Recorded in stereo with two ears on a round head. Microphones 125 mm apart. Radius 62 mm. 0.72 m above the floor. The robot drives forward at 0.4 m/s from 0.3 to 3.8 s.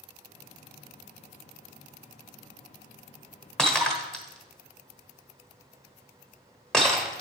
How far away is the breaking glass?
About 1.2 m.